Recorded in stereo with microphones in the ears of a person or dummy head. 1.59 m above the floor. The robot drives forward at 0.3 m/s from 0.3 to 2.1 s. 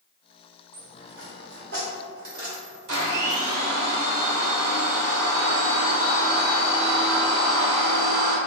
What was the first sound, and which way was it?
A dropped coin, 60° right (ahead or behind).